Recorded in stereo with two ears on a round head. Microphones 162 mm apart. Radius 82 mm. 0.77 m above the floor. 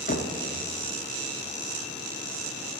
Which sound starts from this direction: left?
Knocking, at 0.1 s.